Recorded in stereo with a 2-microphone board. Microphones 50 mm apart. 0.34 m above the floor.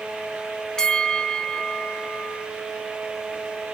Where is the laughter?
No laughter in this recording.